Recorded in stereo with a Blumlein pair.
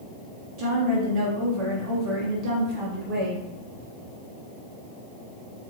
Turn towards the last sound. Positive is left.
turn(degrees=-40)